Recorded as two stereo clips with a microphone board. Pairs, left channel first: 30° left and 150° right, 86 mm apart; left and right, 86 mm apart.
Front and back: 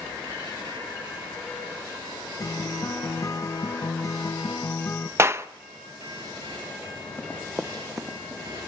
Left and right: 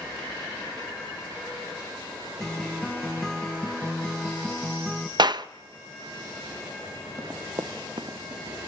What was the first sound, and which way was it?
A guitar, 5° left.